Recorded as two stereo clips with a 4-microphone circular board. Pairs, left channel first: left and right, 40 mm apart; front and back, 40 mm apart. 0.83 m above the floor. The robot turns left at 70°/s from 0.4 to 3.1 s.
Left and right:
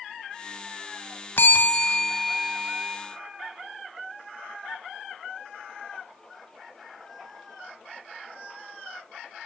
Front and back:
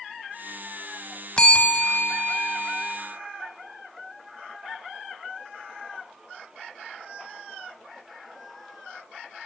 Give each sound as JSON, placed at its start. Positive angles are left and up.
{"t": 1.4, "sound": "a bell", "azimuth_deg": 65, "distance_m": 1.6}